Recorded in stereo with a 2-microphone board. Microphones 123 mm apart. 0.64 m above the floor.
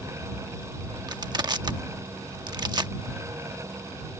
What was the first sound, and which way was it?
Crushing, 40° right (ahead or behind).